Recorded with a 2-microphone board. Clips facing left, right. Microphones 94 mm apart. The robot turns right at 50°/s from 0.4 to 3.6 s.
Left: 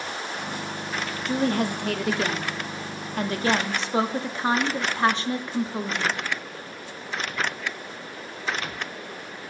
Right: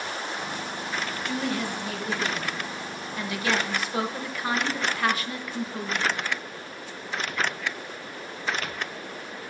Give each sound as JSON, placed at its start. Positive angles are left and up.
{"t": 1.3, "sound": "a woman speaking", "azimuth_deg": 35, "distance_m": 0.5}